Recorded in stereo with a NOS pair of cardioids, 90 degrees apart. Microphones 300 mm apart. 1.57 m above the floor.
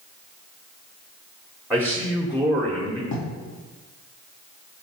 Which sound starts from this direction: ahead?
A man speaking, at 1.7 s.